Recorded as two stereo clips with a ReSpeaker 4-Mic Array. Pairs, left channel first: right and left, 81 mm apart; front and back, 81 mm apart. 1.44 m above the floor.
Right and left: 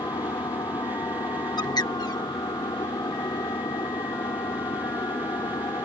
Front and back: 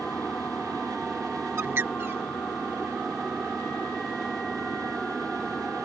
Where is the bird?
120° right.